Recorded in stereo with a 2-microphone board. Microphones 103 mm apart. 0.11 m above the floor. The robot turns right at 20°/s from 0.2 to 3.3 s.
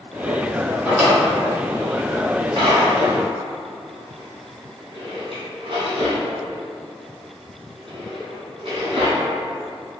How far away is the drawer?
About 1.5 m.